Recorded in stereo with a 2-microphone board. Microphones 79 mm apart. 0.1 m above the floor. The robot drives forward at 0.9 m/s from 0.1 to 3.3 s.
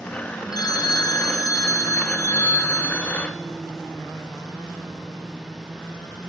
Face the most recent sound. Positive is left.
turn(degrees=25)  # may be behind; listen again after turning